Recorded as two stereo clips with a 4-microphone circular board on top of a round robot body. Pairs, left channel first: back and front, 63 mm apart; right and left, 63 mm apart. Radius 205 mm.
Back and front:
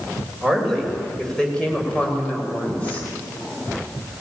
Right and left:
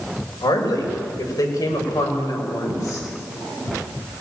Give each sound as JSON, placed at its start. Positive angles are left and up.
{"t": 0.4, "sound": "a woman speaking", "azimuth_deg": -95, "distance_m": 5.0}